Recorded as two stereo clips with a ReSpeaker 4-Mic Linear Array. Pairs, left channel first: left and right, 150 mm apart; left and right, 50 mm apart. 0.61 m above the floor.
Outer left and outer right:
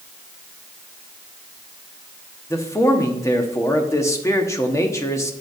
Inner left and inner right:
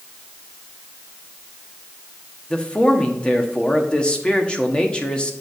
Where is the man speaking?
20° left (ahead or behind), 1.1 m.